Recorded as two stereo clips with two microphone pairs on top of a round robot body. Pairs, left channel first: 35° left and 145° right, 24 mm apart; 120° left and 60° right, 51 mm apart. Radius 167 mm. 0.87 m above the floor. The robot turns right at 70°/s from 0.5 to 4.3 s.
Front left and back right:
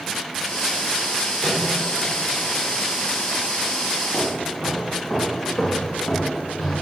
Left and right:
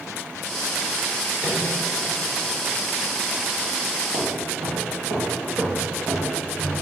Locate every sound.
1.4 s a microwave: 60° left, 3 m; by 1.7 s 80° left, 3 m
4.1 s footsteps: 60° right, 2 m; by 6.8 s 15° right, 3 m